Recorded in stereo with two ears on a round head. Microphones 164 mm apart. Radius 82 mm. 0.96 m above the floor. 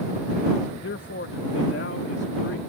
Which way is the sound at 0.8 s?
60° left (ahead or behind).